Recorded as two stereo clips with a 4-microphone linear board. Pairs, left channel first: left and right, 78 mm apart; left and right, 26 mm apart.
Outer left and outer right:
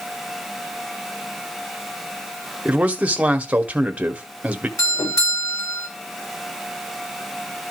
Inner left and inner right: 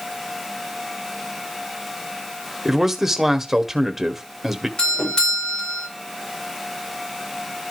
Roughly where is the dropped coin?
No dropped coin in this recording.